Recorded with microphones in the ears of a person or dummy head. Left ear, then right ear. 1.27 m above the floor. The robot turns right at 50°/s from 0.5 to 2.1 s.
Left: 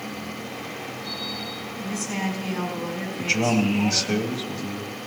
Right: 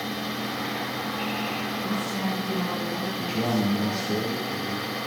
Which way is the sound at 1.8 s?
70° left (ahead or behind).